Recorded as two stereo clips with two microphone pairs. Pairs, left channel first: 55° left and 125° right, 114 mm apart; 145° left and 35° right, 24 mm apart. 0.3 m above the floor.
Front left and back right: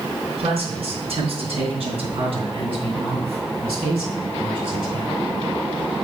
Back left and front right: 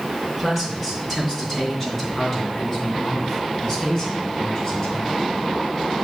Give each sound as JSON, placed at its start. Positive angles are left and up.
{"t": 0.4, "sound": "a man speaking", "azimuth_deg": -135, "distance_m": 3.0}